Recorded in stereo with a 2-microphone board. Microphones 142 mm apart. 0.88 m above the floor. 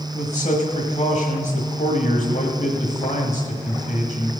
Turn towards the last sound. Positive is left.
turn(degrees=65)  # may be behind; listen again after turning